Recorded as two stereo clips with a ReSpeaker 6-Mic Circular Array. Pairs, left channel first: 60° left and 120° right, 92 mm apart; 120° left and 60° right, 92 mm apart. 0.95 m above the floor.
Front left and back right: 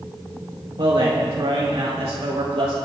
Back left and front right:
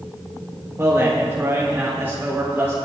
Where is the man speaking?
115° right, 1.7 m; by 2.7 s 130° right, 3 m.